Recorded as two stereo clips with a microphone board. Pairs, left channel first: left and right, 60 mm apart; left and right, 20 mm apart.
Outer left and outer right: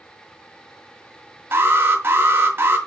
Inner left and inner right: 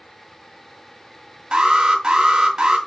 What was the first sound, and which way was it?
An alarm, 35° right (ahead or behind).